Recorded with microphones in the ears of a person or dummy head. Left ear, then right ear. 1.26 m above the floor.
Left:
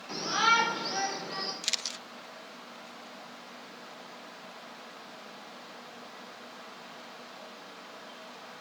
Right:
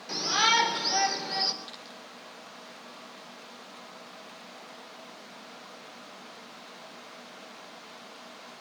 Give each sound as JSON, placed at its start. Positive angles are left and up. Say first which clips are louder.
{"t": 0.1, "sound": "a shout", "louder": "right 1 dB", "side_deg": -15, "distance_m": 4.0}
{"t": 1.6, "sound": "a camera shutter", "louder": "left 10 dB", "side_deg": 65, "distance_m": 0.5}